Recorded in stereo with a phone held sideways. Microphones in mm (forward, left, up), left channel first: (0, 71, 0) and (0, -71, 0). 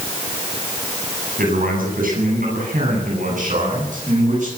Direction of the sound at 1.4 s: 85° right.